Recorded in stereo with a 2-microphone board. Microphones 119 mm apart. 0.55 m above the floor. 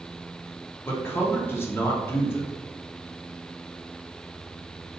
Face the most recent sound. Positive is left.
turn(degrees=20)  # may be behind; listen again after turning